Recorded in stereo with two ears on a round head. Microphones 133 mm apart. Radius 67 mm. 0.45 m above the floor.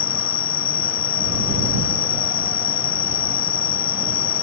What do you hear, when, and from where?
0.0 s an insect: 70° left (ahead or behind)